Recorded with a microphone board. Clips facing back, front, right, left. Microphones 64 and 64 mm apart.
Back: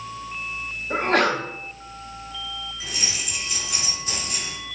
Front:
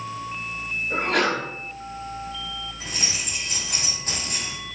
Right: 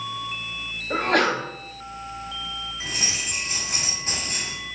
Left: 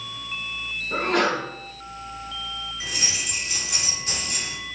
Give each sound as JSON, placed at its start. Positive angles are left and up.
{"t": 0.9, "sound": "a sneeze", "azimuth_deg": -125, "distance_m": 4.0}
{"t": 2.8, "sound": "keys jangling", "azimuth_deg": -40, "distance_m": 3.5}